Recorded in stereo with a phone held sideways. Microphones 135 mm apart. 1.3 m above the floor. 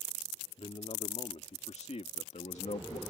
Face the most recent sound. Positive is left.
turn(degrees=65)  # may be behind; listen again after turning